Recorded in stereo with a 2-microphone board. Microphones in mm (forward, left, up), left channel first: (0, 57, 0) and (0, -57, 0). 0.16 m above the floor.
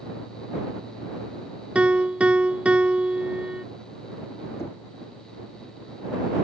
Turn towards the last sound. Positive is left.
turn(degrees=25)  # may be behind; listen again after turning